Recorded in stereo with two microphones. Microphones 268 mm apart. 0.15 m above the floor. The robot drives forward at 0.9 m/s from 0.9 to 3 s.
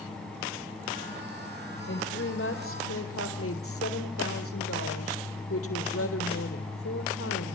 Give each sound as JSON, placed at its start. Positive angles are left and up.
{"t": 1.9, "sound": "a woman speaking", "side_deg": 45, "distance_m": 4.0}